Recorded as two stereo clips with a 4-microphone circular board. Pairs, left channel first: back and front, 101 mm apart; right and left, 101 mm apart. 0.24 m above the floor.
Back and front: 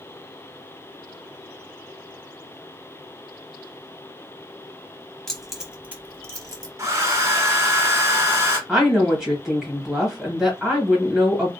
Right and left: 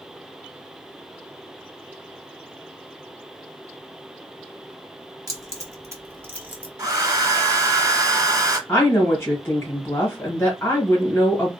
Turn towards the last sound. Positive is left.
turn(degrees=-75)